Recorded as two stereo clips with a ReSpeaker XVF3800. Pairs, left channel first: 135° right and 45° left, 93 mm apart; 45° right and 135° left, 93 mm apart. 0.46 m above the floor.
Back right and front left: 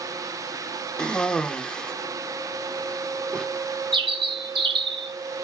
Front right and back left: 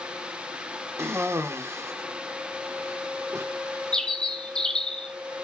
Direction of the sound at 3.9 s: 35° left.